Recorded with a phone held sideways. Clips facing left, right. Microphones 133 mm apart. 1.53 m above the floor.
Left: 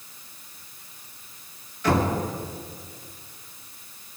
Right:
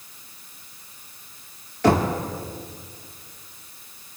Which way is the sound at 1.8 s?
75° right (ahead or behind).